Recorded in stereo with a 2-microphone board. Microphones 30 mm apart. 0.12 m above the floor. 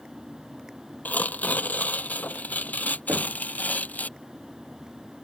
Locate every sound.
1.1 s tearing paper: 70° left (ahead or behind)
3.1 s knocking: 75° right (ahead or behind)